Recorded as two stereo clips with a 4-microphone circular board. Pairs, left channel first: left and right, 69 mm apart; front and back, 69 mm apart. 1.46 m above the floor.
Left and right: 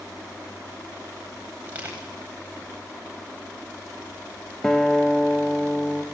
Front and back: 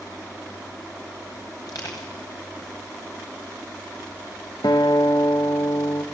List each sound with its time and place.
1.7 s crushing: 20° right, 9.5 m
4.6 s a guitar: 10° left, 1.6 m